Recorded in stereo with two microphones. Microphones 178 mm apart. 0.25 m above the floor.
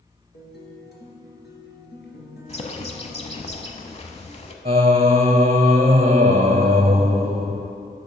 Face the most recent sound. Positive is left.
turn(degrees=-35)  # may be behind; listen again after turning